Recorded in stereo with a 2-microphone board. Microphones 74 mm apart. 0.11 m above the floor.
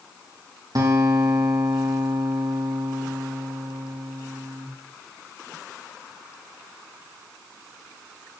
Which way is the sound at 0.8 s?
55° right (ahead or behind).